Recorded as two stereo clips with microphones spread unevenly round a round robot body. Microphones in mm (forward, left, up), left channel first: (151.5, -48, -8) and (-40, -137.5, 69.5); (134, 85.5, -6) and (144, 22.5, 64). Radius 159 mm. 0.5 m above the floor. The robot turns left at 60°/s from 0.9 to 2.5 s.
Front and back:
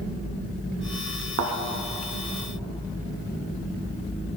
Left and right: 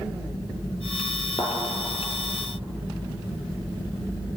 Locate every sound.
1.4 s a thud: 165° right, 0.9 m; by 1.5 s 175° right, 0.9 m